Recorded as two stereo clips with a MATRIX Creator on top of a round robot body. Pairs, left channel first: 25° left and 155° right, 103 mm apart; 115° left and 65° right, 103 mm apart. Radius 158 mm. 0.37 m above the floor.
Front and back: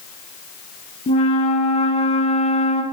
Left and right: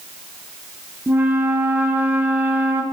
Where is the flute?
5° left, 2.5 m.